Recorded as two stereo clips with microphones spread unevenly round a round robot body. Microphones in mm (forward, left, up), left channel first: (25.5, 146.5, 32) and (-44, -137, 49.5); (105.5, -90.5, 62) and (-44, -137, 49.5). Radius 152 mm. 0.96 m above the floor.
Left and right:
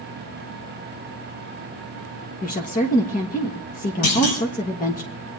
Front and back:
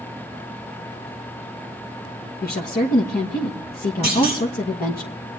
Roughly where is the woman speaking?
Ahead.